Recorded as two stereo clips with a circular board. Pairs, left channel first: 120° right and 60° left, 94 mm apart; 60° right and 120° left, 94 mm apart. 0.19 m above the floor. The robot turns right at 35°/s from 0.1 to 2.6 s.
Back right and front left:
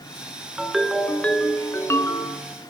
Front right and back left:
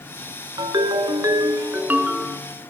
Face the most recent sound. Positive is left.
turn(degrees=-150)